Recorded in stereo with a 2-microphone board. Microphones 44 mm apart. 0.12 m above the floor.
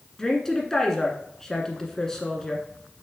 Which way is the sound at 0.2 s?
10° left (ahead or behind).